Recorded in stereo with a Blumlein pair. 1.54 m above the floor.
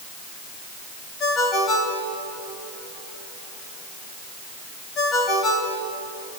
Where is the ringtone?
30° left, 3.5 m.